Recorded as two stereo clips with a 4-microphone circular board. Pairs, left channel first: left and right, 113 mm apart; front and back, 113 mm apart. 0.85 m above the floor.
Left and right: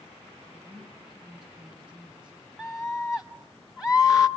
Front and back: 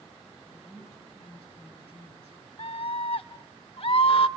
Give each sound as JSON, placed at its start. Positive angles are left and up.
{"t": 0.5, "sound": "a woman speaking", "azimuth_deg": -40, "distance_m": 9.0}
{"t": 2.6, "sound": "a scream", "azimuth_deg": -5, "distance_m": 1.0}